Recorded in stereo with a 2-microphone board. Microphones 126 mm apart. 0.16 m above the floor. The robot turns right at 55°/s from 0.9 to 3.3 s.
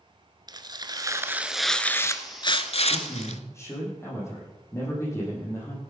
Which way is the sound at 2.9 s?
45° left (ahead or behind).